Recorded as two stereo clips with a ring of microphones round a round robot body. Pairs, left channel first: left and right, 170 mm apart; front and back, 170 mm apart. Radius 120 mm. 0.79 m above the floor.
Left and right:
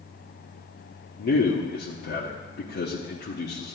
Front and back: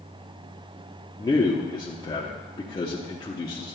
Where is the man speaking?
70° left, 1.2 m.